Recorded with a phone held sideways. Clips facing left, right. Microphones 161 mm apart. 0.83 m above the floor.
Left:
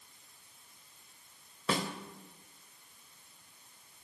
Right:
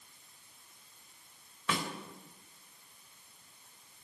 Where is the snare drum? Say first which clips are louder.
Left 3 dB; 35° left (ahead or behind), 3 m.